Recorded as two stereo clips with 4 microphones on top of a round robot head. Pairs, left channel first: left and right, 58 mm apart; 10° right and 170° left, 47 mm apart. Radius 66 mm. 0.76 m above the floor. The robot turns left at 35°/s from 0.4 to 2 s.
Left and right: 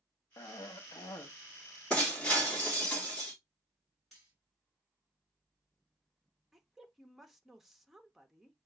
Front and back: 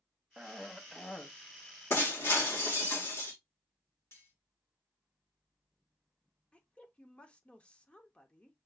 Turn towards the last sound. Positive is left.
turn(degrees=-10)